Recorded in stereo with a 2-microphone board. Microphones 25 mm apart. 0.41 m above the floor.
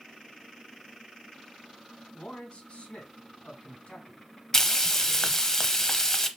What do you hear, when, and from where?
2.1 s a man speaking: 55° left (ahead or behind), 3 m
4.5 s frying: 20° left (ahead or behind), 0.6 m